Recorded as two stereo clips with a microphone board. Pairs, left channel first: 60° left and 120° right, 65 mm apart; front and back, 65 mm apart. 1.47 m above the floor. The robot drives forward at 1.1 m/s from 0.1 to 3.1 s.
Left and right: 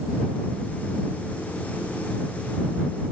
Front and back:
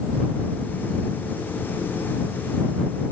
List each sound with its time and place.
Only background noise.